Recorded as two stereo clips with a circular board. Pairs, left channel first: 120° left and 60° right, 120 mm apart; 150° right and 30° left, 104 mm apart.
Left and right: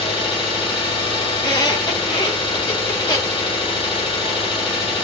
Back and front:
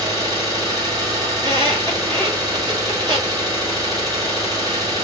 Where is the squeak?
70° left, 1.1 m.